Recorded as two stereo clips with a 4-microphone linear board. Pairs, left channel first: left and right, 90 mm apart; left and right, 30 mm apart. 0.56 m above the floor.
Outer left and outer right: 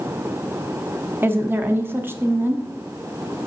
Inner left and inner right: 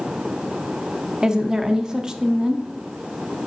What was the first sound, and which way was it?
A woman speaking, 25° right (ahead or behind).